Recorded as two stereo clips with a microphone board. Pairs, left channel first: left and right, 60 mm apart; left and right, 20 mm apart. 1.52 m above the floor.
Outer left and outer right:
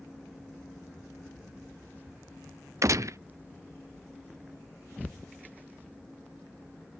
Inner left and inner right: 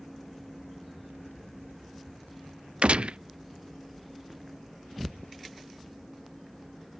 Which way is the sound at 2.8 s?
60° right (ahead or behind).